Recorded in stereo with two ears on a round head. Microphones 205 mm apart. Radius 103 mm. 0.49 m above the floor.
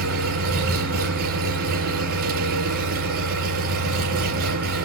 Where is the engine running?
40° right (ahead or behind), 3.5 m.